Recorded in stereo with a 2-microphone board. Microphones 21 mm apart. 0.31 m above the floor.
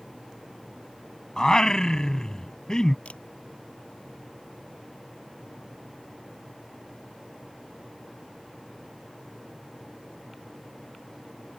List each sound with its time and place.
1.4 s singing: 35° left (ahead or behind)
3.0 s a camera shutter: 75° left (ahead or behind)